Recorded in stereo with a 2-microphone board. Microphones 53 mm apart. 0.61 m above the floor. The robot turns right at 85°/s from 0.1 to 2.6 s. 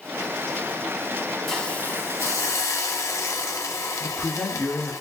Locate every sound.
1.5 s a hiss: 5° left, 0.7 m; by 5.0 s 100° left, 0.7 m
4.0 s a man speaking: 10° left (ahead or behind), 1.0 m